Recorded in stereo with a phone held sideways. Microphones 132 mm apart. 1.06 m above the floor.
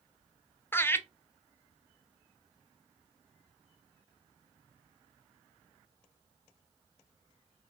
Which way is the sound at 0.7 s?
15° left (ahead or behind).